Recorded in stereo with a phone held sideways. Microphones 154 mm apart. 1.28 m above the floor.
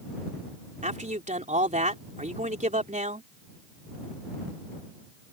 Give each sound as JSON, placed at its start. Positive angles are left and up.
{"t": 0.8, "sound": "a man speaking", "side_deg": -55}